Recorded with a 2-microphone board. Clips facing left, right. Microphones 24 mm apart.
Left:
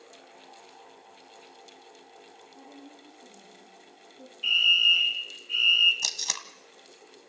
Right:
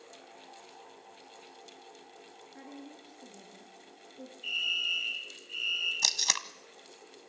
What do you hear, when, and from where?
2.5 s a woman speaking: 75° right (ahead or behind), 4.5 m
4.4 s a fire alarm: 45° left (ahead or behind), 2.5 m
6.0 s tape being pulled: 20° right (ahead or behind), 1.1 m